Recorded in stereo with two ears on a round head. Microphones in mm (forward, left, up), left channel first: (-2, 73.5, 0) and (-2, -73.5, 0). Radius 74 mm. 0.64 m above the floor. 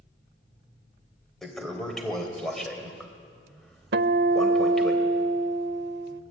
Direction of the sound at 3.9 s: 75° right (ahead or behind).